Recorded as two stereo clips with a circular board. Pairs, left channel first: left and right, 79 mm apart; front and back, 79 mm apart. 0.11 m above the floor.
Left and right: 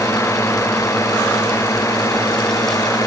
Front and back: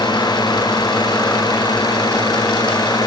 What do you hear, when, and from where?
0.0 s a drone: 35° left; by 3.1 s 40° left